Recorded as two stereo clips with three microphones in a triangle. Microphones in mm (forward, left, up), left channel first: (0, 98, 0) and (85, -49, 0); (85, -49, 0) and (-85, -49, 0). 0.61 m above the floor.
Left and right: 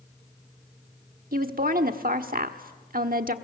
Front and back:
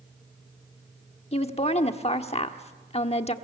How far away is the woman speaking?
About 1.2 m.